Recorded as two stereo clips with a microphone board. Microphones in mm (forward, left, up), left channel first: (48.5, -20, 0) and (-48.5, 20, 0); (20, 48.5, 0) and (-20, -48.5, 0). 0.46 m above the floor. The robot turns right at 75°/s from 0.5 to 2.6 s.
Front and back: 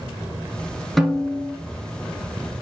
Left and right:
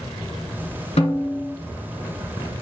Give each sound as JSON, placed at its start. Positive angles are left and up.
{"t": 1.0, "sound": "a snare drum", "azimuth_deg": 65, "distance_m": 3.0}